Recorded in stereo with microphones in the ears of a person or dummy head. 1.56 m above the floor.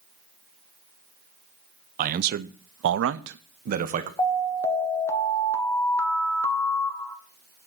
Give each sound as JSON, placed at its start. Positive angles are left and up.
{"t": 2.0, "sound": "a man speaking", "side_deg": -50, "distance_m": 0.7}
{"t": 4.2, "sound": "an alarm", "side_deg": 10, "distance_m": 1.2}